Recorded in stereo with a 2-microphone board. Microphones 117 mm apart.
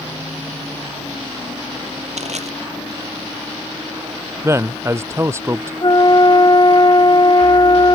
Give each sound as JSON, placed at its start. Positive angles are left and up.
{"t": 2.2, "sound": "crushing", "side_deg": -70}
{"t": 4.4, "sound": "a man speaking", "side_deg": -20}
{"t": 5.8, "sound": "a flute", "side_deg": 35}